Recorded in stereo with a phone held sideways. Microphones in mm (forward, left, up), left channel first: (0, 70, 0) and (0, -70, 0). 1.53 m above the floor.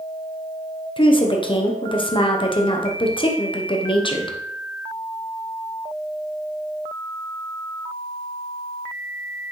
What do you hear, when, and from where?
1.0 s a woman speaking: 35° left (ahead or behind), 0.9 m